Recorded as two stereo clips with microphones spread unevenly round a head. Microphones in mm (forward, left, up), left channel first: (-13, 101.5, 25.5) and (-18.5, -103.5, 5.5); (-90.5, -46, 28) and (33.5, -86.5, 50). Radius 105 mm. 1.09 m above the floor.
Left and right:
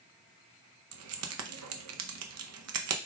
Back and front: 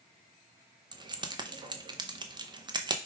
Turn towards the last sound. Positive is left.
turn(degrees=-75)